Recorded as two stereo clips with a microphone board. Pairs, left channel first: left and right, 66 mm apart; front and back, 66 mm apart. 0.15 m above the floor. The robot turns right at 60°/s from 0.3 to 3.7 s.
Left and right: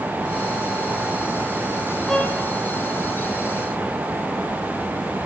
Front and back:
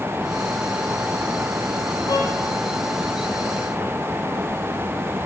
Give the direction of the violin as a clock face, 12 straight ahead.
12 o'clock.